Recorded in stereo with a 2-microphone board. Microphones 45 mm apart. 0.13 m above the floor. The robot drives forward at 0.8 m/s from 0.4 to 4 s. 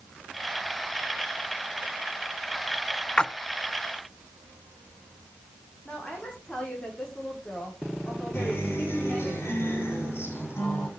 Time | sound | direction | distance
3.2 | a splash | 20° left (ahead or behind) | 0.6 m
5.8 | a woman speaking | 20° left (ahead or behind) | 8 m
8.3 | a guitar | 60° left (ahead or behind) | 8 m